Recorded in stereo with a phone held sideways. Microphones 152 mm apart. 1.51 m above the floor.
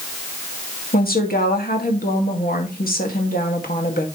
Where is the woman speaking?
75° left (ahead or behind), 2 m.